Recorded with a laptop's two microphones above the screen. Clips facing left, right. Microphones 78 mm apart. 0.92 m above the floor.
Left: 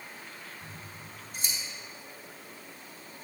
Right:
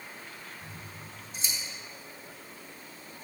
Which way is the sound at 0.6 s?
50° left (ahead or behind).